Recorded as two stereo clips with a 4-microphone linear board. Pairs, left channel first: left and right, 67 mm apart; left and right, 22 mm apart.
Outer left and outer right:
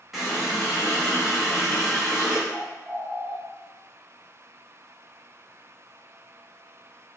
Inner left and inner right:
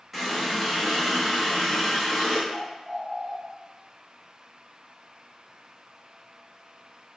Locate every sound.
0.1 s a running tap: 5° right (ahead or behind), 1.0 m
2.5 s a bird: 45° right (ahead or behind), 0.9 m